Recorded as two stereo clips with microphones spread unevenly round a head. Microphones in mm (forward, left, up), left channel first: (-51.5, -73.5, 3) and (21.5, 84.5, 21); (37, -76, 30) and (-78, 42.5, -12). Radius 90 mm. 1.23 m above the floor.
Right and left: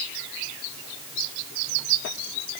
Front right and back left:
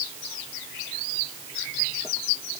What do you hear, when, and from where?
Only background noise.